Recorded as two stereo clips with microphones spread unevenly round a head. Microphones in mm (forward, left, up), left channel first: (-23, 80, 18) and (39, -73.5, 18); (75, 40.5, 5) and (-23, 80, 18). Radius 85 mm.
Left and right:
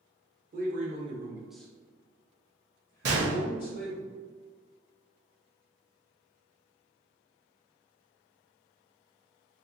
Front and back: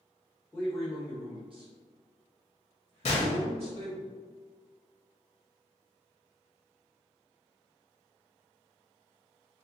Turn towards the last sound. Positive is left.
turn(degrees=-50)